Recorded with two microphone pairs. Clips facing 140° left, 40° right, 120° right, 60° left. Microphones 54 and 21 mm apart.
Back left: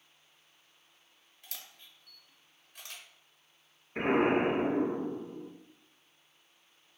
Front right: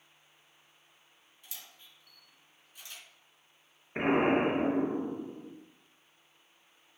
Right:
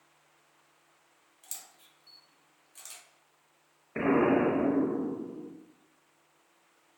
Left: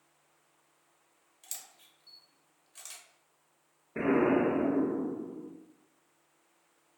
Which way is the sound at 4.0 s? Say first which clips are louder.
Even, right 1 dB; 100° right.